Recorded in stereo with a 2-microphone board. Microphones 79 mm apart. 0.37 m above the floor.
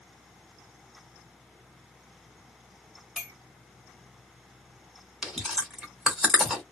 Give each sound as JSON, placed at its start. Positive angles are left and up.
{"t": 3.2, "sound": "a clink", "side_deg": 0, "distance_m": 1.0}
{"t": 5.2, "sound": "chewing", "side_deg": -5, "distance_m": 1.3}